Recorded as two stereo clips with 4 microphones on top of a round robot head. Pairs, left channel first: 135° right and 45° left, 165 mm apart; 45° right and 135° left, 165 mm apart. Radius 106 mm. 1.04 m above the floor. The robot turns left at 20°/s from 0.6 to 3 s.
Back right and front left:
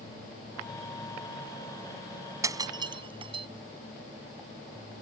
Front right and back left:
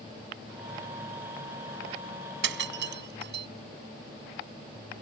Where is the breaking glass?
120° left; by 3.5 s 105° left.